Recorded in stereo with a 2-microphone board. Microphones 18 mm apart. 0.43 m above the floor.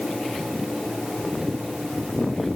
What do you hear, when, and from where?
Only background noise.